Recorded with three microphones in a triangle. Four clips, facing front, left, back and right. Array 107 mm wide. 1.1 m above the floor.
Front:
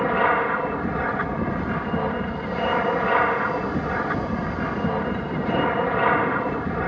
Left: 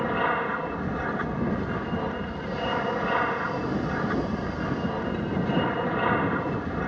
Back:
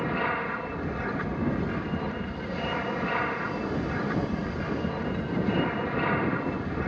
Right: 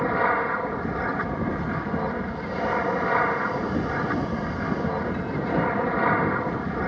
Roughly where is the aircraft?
Ahead.